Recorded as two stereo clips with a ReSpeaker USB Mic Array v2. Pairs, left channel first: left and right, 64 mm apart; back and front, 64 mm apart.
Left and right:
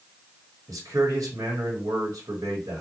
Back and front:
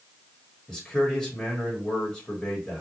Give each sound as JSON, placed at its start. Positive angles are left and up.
{"t": 0.7, "sound": "a man speaking", "azimuth_deg": -100, "distance_m": 1.1}